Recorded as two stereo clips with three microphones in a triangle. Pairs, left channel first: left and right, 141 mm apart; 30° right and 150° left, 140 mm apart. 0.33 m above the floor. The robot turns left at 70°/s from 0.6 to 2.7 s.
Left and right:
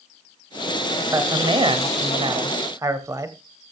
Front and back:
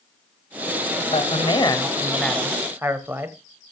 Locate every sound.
1.1 s a man speaking: 30° right, 1.3 m; by 3.4 s 145° right, 1.3 m